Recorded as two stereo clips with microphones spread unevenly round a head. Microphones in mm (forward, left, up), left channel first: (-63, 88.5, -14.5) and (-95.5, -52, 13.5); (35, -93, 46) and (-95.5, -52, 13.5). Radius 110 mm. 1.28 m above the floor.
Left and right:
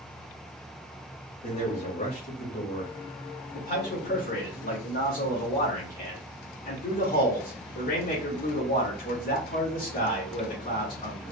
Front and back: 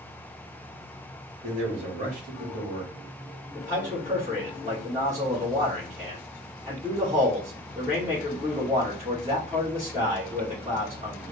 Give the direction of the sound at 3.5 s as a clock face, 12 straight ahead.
9 o'clock.